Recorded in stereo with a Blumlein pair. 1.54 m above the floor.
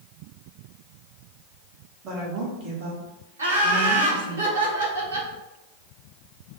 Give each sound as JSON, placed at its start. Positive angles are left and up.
{"t": 2.0, "sound": "a woman speaking", "azimuth_deg": -35, "distance_m": 1.6}
{"t": 3.4, "sound": "laughter", "azimuth_deg": -65, "distance_m": 1.3}